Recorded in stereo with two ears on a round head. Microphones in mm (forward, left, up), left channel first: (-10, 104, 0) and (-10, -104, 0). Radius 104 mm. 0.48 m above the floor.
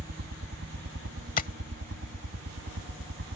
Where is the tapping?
35° left (ahead or behind).